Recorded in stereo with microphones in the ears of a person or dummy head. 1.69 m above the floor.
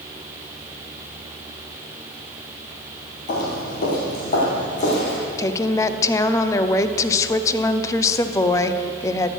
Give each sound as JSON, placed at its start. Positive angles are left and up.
{"t": 3.3, "sound": "footsteps", "side_deg": 45, "distance_m": 2.5}
{"t": 5.4, "sound": "a woman speaking", "side_deg": 20, "distance_m": 0.7}